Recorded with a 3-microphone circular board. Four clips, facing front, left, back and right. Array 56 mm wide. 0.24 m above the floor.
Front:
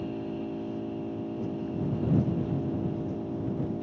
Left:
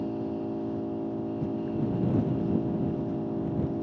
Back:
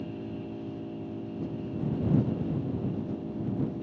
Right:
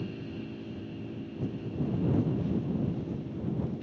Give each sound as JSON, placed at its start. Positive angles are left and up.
{"t": 0.0, "sound": "an engine running", "azimuth_deg": 70}